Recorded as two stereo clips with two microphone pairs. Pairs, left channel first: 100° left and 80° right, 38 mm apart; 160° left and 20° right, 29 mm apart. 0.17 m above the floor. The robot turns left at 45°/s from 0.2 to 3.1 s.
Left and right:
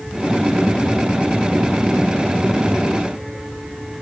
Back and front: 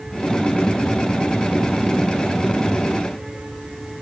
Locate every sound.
Only background noise.